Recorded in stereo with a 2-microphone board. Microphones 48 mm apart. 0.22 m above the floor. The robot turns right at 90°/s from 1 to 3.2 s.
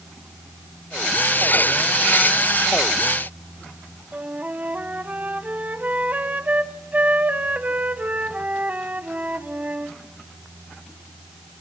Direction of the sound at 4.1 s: 35° right (ahead or behind).